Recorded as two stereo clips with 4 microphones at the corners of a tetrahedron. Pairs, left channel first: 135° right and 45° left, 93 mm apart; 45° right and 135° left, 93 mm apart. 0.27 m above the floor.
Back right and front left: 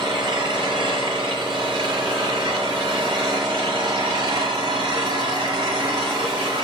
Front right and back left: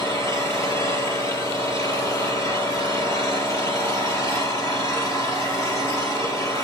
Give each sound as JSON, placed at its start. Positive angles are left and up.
{"t": 0.0, "sound": "an engine running", "azimuth_deg": 10, "distance_m": 4.5}